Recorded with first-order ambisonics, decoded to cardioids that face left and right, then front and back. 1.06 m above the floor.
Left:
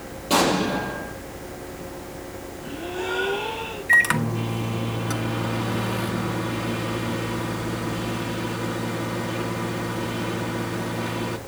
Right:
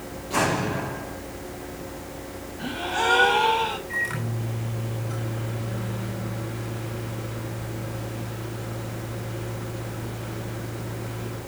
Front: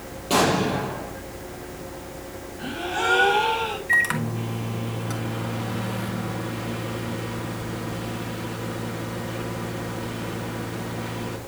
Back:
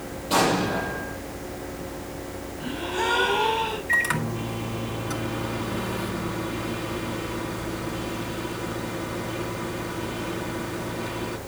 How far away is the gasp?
About 6.5 m.